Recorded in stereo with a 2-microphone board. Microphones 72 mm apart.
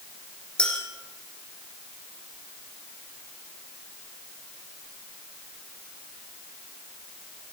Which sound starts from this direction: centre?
A clink, at 0.6 s.